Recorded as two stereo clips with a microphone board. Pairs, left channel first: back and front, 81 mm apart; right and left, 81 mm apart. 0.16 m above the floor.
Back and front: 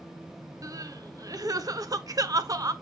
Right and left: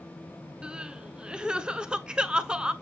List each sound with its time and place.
0.6 s crying: 15° left, 0.6 m